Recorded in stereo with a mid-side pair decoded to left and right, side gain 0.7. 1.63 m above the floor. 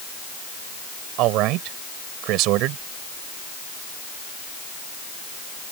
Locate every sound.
1.2 s a man speaking: 65° right